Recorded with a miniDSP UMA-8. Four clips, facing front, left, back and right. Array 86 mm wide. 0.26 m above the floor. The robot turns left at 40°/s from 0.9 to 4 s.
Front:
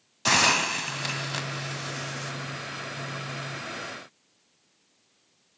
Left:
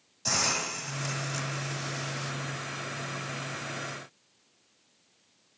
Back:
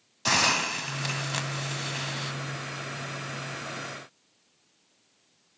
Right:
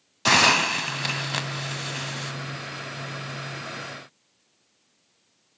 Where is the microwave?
No microwave in this recording.